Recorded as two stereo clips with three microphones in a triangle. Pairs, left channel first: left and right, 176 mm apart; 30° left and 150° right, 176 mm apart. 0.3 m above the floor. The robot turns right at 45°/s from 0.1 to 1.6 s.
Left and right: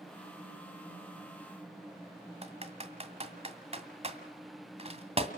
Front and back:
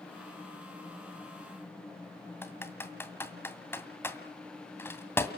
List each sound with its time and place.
2.4 s typing on a keyboard: 45° right, 2 m